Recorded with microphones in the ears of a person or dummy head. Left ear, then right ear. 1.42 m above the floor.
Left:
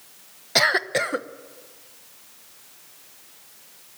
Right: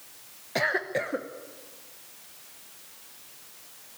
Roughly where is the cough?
Left.